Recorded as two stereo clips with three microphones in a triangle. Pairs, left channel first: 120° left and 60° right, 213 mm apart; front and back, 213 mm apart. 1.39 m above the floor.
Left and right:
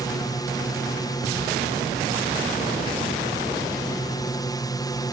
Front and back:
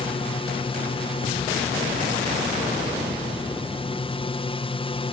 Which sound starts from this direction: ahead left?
A drone, at 0.0 s.